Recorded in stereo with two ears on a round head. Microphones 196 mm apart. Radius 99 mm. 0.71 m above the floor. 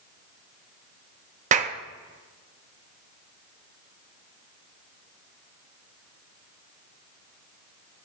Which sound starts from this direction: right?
A clap, at 1.5 s.